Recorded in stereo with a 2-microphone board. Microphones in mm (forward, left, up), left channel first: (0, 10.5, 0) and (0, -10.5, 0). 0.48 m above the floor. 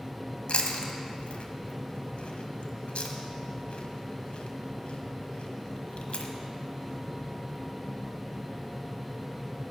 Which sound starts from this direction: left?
Chewing, at 0.5 s.